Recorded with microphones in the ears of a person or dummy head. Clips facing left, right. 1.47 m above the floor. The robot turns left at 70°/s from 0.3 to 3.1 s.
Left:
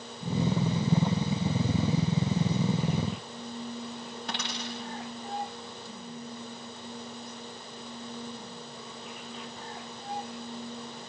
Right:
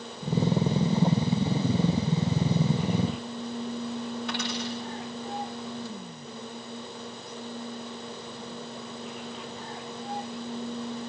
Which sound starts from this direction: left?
A dropped coin, at 4.3 s.